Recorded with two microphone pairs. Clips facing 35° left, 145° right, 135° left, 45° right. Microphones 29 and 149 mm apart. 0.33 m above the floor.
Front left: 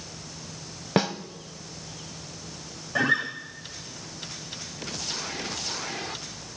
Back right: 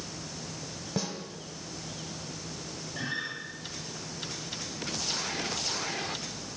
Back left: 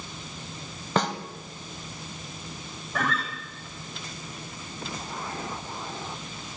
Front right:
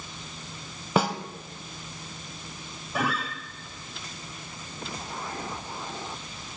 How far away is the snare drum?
About 1.0 m.